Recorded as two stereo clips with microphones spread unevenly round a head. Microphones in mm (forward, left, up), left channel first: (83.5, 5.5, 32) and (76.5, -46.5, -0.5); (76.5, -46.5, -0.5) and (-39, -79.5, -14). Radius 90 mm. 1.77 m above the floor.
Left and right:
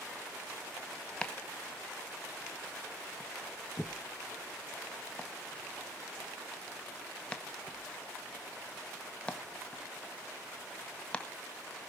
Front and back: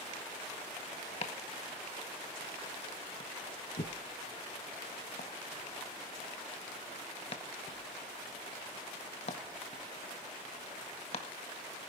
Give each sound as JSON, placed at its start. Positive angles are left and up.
{"t": 1.2, "sound": "chopping", "azimuth_deg": 40, "distance_m": 1.7}